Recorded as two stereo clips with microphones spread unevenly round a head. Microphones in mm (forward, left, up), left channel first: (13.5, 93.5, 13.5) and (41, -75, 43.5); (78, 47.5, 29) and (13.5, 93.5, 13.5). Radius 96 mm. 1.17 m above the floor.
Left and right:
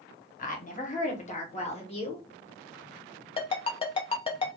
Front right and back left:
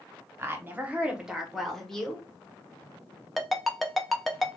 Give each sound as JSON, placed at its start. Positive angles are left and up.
{"t": 0.4, "sound": "a woman speaking", "azimuth_deg": 100, "distance_m": 1.0}
{"t": 3.4, "sound": "a ringtone", "azimuth_deg": 40, "distance_m": 0.6}